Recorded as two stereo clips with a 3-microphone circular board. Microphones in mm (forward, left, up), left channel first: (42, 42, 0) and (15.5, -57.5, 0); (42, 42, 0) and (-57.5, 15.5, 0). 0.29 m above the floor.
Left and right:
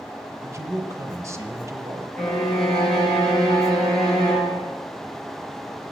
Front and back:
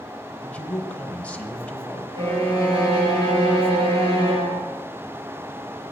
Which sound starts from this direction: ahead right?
A man speaking, at 0.4 s.